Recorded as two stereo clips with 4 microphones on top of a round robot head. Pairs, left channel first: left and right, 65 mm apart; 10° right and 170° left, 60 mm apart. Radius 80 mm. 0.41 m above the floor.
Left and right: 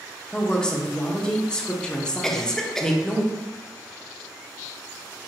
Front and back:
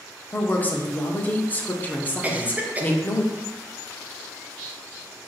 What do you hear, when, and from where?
0.3 s a woman speaking: 25° left, 0.8 m
2.2 s a cough: 165° left, 0.8 m